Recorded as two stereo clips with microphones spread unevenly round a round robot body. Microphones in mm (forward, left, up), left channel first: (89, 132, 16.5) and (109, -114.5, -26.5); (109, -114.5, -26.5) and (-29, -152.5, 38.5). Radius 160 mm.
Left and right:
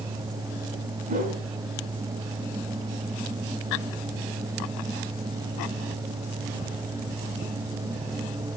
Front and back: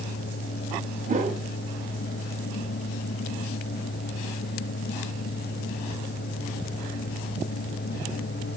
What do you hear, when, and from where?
1.1 s a whoosh: 120° right, 1.6 m